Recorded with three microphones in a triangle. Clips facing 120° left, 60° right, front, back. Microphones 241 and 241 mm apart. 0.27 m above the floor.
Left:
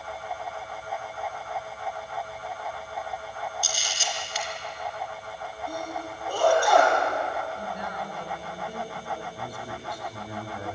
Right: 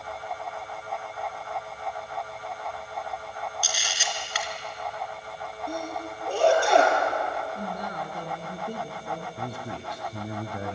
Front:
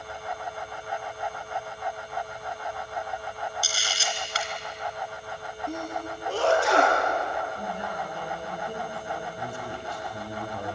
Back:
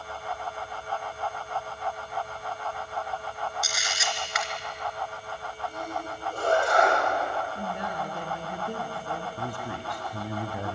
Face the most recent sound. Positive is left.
turn(degrees=-115)